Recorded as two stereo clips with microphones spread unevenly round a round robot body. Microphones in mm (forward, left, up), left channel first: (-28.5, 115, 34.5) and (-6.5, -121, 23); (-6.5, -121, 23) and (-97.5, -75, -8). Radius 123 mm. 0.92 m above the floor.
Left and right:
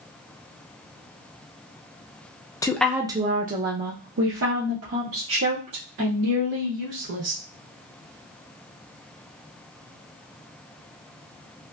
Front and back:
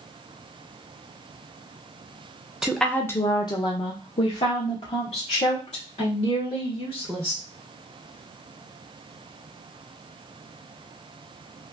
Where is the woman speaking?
155° left, 0.5 m; by 7.4 s 60° right, 2.5 m.